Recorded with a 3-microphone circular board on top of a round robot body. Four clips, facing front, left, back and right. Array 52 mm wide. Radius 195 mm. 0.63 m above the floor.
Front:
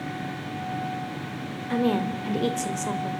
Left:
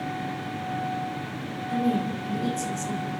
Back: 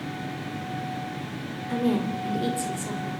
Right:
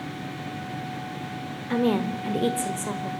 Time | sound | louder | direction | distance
1.7 | a woman speaking | right 2 dB, front 1 dB | 65° right | 2.5 m